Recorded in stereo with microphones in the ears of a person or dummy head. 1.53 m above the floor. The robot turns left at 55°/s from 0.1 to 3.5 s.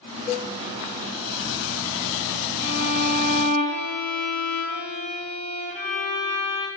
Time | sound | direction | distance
0.3 | a cowbell | 45° left (ahead or behind) | 2 m
2.6 | a violin | 55° right | 6.5 m